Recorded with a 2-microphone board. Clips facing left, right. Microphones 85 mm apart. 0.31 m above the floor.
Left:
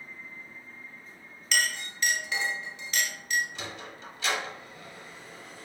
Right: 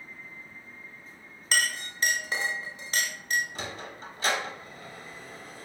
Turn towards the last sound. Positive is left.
turn(degrees=-40)  # may be behind; listen again after turning